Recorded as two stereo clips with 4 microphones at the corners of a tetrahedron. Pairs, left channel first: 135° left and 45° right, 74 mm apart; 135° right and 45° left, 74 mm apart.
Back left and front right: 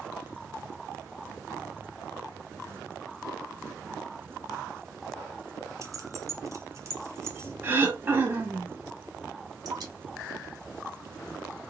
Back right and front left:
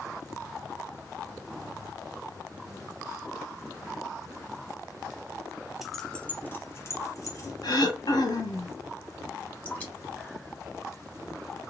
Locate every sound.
5.8 s keys jangling: 40° right, 0.5 m; by 7.5 s 100° right, 1.1 m
7.6 s throat clearing: 110° right, 0.9 m
9.7 s dripping: 70° right, 1.6 m